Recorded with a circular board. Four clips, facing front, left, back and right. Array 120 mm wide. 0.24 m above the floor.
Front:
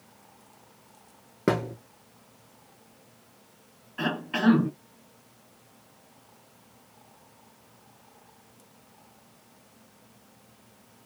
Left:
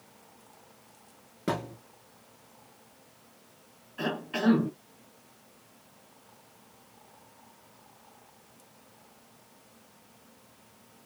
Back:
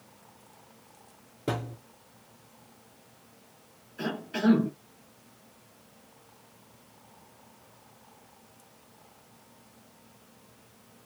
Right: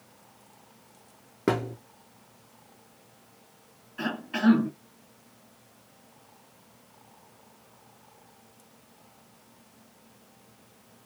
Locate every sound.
1.5 s a thud: 30° right, 1.3 m
4.0 s a cough: 5° right, 2 m